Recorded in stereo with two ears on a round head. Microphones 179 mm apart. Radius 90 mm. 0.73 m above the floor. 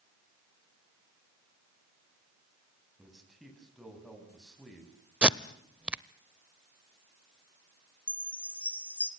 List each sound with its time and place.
3.0 s a man speaking: centre (ahead or behind), 6 m
5.2 s tape being pulled: 5° right (ahead or behind), 0.5 m
8.1 s a chime: 5° left (ahead or behind), 1.6 m